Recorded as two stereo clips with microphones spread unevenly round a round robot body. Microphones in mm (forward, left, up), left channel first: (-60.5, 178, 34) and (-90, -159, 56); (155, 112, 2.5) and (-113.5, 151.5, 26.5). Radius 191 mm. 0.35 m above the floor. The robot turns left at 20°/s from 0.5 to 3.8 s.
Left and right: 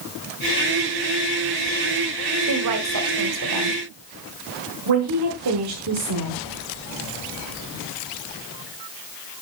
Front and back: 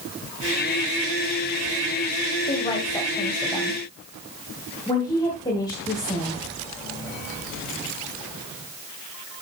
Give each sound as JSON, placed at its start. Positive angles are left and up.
{"t": 2.5, "sound": "a woman speaking", "azimuth_deg": -75, "distance_m": 1.8}
{"t": 4.9, "sound": "a woman speaking", "azimuth_deg": -80, "distance_m": 1.8}